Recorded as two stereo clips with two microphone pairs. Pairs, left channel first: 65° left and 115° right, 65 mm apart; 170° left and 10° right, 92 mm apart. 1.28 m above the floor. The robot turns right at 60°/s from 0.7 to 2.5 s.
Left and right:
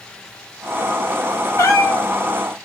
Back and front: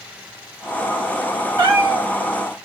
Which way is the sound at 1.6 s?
20° left.